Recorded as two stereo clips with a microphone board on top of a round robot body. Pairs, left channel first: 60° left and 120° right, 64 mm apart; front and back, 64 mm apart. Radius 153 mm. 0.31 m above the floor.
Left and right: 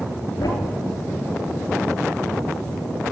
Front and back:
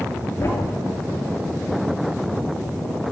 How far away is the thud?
About 3.5 m.